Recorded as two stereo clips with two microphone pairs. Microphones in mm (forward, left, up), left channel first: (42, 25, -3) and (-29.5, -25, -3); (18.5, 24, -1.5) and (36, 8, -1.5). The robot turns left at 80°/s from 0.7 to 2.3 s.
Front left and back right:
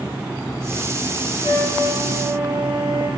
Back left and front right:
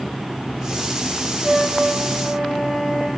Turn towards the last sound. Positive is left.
turn(degrees=-65)